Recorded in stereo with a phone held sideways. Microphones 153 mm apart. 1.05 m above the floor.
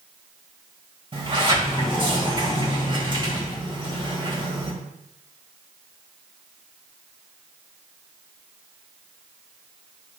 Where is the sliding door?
30° right (ahead or behind), 2 m.